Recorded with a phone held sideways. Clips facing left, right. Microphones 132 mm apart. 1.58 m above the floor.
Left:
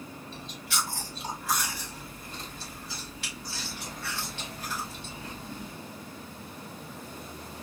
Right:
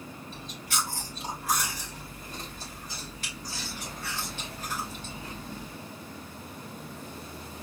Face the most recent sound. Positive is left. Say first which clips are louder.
# right 1 dB
turn(degrees=-45)  # may be behind; listen again after turning